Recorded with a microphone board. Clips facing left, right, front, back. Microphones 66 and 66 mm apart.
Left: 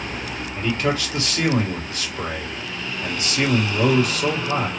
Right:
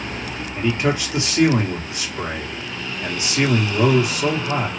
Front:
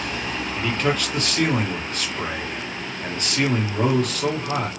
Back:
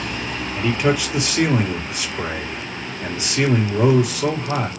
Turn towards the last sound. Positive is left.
turn(degrees=-115)